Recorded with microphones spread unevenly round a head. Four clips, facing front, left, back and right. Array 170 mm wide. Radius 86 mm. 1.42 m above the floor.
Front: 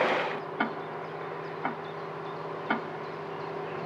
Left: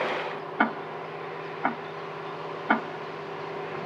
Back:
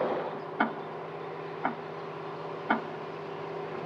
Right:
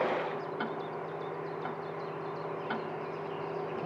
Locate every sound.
0.6 s ticking: 90° left, 0.5 m